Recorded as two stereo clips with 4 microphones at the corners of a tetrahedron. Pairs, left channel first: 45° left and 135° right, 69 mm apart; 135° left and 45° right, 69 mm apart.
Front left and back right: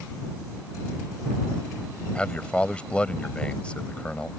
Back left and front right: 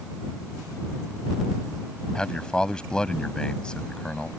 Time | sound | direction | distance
2.1 | a man speaking | 85° left | ?